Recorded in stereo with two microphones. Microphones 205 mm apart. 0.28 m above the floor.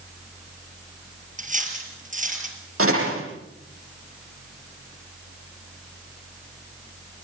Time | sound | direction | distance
1.4 | cutlery clinking | 35° right (ahead or behind) | 4 m
2.8 | a door slam | 80° right | 9.5 m